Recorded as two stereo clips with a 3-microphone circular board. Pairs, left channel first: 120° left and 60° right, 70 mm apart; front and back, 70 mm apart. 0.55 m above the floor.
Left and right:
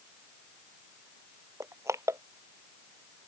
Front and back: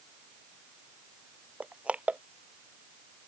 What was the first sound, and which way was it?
Crushing, 110° right.